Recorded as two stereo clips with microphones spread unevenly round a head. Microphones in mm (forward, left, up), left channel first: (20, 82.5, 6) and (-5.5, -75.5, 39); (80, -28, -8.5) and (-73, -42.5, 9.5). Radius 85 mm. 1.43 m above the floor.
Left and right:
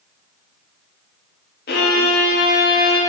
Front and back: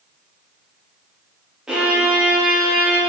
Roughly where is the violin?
Left.